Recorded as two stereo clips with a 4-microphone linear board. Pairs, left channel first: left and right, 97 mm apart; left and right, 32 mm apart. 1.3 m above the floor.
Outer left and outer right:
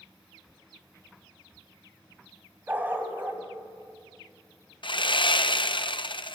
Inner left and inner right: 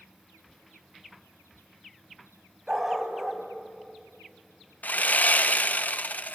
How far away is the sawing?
About 0.5 m.